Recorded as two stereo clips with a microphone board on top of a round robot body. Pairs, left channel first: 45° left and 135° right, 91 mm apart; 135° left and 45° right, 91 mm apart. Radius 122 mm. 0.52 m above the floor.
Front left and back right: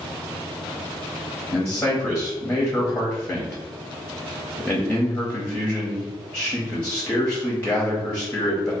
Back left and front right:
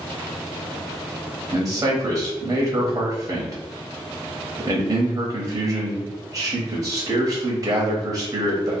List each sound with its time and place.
1.5 s a man speaking: 15° right, 0.8 m